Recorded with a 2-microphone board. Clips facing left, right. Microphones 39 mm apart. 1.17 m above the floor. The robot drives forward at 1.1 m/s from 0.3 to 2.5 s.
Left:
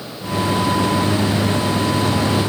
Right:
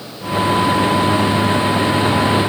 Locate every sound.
Only background noise.